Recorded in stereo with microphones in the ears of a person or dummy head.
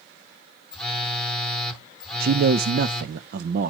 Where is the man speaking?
60° right (ahead or behind), 0.6 m.